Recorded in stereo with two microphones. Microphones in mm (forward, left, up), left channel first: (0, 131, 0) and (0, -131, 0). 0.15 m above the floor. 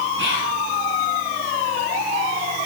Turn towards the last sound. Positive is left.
turn(degrees=-50)  # may be behind; listen again after turning